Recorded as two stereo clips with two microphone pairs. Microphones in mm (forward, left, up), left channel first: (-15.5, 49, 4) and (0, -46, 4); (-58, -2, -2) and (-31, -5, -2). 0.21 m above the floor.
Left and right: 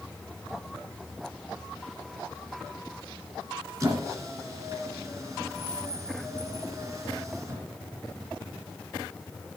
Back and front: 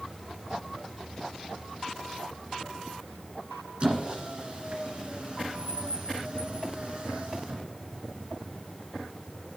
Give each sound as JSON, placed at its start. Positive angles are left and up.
{"t": 3.8, "sound": "a squeak", "azimuth_deg": -40, "distance_m": 1.7}